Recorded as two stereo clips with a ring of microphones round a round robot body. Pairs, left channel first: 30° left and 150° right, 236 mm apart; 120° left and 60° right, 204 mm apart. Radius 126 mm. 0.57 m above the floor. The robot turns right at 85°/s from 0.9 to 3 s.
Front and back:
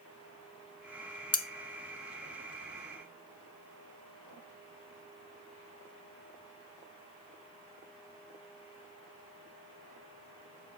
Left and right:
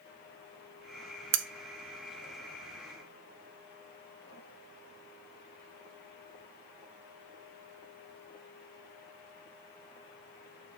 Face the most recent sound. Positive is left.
turn(degrees=100)